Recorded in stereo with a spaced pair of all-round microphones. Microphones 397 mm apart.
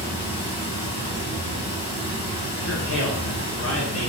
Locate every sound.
0.0 s running water: 15° left (ahead or behind), 1.9 m
2.6 s a man speaking: 35° left (ahead or behind), 0.6 m